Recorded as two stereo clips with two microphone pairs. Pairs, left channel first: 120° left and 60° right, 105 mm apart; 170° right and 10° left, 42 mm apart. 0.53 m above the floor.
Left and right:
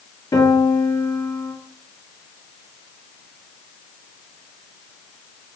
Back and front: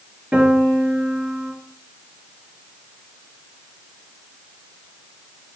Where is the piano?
65° left, 3 m.